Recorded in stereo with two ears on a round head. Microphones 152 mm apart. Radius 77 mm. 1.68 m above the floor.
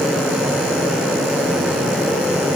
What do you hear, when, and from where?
Only background noise.